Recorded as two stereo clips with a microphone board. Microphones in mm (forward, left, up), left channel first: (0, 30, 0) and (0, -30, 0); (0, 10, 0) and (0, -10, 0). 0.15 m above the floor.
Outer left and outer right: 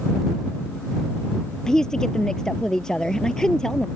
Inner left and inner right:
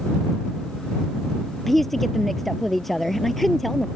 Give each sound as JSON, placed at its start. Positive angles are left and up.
{"t": 1.7, "sound": "a woman speaking", "side_deg": 10}